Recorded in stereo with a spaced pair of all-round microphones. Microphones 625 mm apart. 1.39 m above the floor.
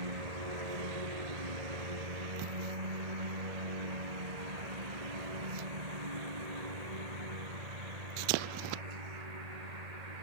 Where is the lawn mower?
75° right (ahead or behind); by 10.2 s 85° right.